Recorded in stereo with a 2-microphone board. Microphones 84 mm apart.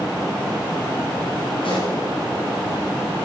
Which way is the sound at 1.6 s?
85° left.